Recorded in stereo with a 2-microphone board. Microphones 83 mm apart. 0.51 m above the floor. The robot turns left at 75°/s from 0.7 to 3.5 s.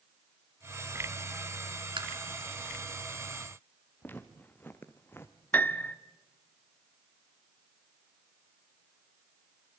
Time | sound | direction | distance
2.0 | tapping | 75° right (ahead or behind) | 3 m
4.0 | footsteps | 20° left (ahead or behind) | 2.5 m
5.5 | a piano | 20° left (ahead or behind) | 0.9 m